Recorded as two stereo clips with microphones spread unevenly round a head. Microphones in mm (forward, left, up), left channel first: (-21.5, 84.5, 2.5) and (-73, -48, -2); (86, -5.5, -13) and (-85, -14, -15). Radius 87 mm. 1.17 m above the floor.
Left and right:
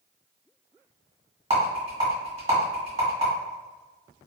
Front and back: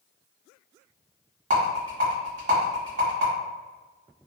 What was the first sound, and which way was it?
A rattle, 140° right.